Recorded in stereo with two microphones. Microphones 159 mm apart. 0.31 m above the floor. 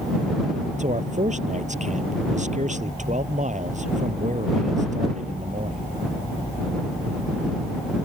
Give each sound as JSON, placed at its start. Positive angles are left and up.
{"t": 0.8, "sound": "a man speaking", "side_deg": -50}